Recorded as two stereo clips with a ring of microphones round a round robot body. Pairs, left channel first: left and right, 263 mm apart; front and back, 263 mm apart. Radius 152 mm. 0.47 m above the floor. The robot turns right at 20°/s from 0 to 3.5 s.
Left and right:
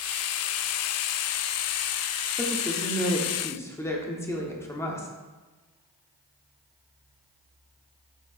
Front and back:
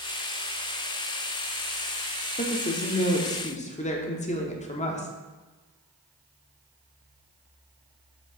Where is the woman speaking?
Straight ahead, 1.1 m; by 5.1 s 20° left, 1.1 m.